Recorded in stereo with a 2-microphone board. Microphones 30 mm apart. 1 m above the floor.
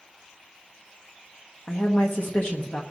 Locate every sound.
1.7 s a woman speaking: 60° left (ahead or behind), 0.8 m